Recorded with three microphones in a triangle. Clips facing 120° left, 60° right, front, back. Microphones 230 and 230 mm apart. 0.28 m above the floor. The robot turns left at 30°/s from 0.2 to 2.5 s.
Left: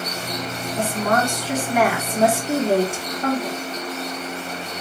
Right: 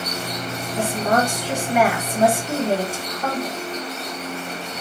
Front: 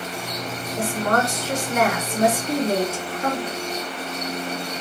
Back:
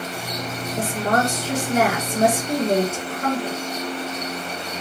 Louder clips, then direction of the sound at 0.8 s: Right 1 dB, even; 110° right.